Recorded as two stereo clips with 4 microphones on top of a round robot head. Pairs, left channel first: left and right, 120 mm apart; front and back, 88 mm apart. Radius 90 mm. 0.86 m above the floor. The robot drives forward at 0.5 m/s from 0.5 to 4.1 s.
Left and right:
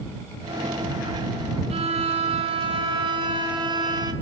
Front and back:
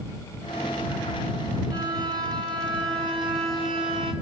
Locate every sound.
1.7 s a violin: 120° right, 1.7 m; by 4.1 s 145° right, 2.5 m